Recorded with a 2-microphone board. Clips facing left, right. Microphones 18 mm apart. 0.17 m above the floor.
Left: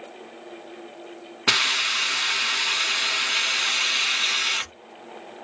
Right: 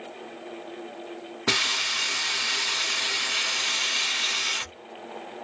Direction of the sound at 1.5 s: 35° left (ahead or behind).